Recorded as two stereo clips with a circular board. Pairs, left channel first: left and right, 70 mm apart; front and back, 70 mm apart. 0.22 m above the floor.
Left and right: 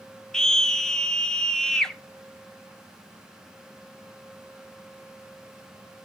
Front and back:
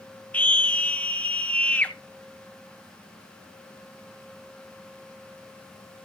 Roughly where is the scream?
Ahead.